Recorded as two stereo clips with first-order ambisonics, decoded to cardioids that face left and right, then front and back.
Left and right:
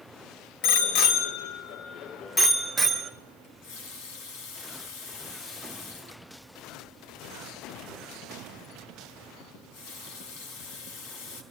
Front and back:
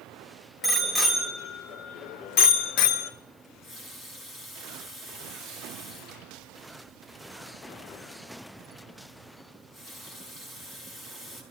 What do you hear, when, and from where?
0.6 s a bicycle bell: 85° left, 2.5 m; by 3.1 s 15° right, 2.5 m
3.4 s a running tap: 70° left, 4.5 m